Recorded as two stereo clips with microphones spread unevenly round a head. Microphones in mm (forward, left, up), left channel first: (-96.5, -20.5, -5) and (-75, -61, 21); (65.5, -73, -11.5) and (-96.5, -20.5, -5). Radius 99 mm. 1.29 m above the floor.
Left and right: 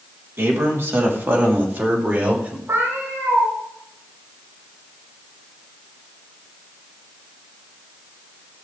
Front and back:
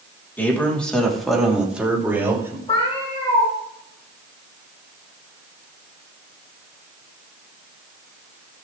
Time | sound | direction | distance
0.4 | a man speaking | 95° right | 3.5 m
2.7 | a cat meowing | 75° right | 5.5 m